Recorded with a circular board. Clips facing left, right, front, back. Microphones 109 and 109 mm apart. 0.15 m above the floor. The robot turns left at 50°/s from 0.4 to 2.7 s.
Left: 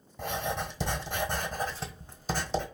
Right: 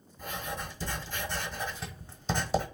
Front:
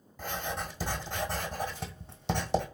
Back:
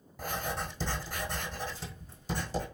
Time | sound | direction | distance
0.2 | writing | 100° left | 1.2 m